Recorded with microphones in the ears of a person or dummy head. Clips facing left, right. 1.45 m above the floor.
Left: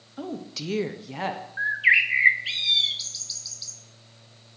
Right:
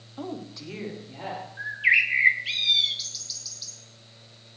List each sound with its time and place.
0.2 s a woman speaking: 10° left (ahead or behind), 1.0 m; by 1.4 s 75° left (ahead or behind), 1.4 m
1.6 s a bird: 10° left (ahead or behind), 0.5 m